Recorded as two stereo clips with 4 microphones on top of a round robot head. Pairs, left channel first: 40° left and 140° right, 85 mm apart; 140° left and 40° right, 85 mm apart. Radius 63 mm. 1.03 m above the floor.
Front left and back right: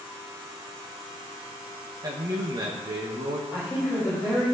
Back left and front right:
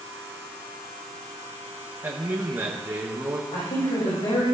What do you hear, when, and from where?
2.0 s a man speaking: 105° right, 1.5 m
3.5 s a woman speaking: 145° left, 5.5 m